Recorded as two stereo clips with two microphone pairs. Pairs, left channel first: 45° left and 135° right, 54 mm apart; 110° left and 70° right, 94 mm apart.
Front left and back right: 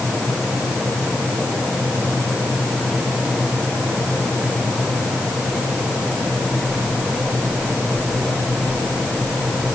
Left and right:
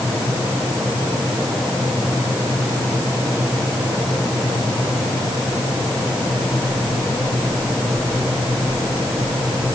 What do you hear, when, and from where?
Only background noise.